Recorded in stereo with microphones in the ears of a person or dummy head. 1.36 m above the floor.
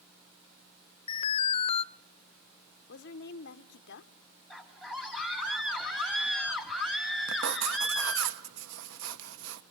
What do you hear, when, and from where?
1.1 s an alarm: 30° left (ahead or behind), 0.5 m
2.9 s a woman speaking: 65° left (ahead or behind), 1.0 m
4.5 s a scream: centre (ahead or behind), 3.5 m
7.3 s writing: 80° right, 1.0 m